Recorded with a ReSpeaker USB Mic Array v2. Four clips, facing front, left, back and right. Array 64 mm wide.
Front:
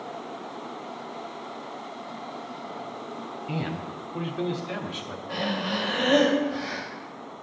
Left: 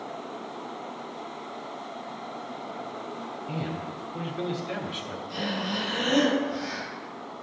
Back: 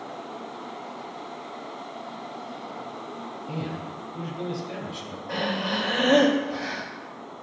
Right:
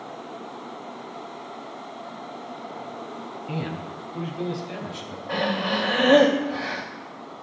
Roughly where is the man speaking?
Ahead right.